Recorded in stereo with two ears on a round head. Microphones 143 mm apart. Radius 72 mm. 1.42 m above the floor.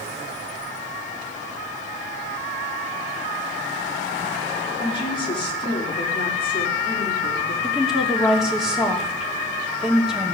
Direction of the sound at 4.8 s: 30° left (ahead or behind).